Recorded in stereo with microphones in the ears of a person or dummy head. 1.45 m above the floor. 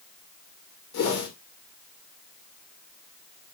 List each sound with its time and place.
0.9 s a whoosh: 60° left (ahead or behind), 2.5 m